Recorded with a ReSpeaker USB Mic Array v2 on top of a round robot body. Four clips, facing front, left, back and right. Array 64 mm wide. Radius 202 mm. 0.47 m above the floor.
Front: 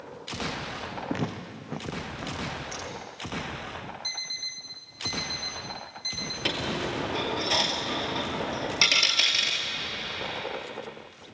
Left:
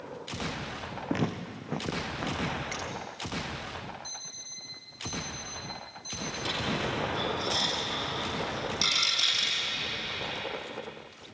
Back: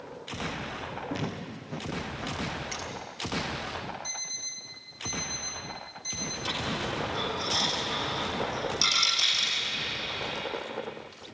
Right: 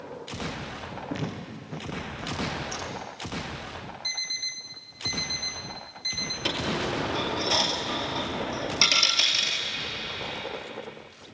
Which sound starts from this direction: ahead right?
A dropped coin, at 6.5 s.